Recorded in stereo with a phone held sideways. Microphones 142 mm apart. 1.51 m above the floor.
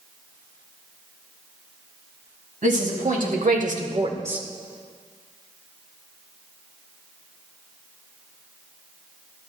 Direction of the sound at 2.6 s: 80° right.